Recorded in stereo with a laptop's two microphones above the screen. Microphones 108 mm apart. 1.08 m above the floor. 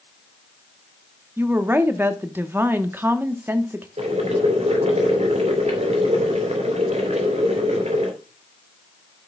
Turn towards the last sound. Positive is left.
turn(degrees=-85)